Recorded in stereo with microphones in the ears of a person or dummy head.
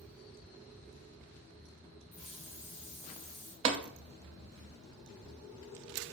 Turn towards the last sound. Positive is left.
turn(degrees=-40)  # may be behind; listen again after turning